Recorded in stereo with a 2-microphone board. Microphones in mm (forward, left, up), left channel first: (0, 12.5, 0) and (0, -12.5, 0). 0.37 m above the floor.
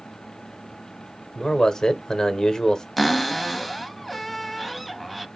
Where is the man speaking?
25° left (ahead or behind), 1.1 m.